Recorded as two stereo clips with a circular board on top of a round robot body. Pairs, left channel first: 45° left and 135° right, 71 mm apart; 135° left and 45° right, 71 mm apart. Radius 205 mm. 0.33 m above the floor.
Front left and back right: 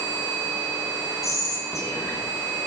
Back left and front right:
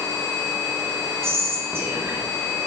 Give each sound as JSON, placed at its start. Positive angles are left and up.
{"t": 1.2, "sound": "whispering", "azimuth_deg": 5, "distance_m": 2.5}